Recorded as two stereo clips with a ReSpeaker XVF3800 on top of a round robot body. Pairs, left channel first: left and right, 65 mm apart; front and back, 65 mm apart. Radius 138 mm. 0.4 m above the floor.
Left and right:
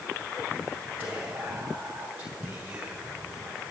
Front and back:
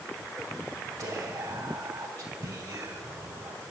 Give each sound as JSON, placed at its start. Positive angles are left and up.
{"t": 1.0, "sound": "whispering", "azimuth_deg": -145, "distance_m": 3.0}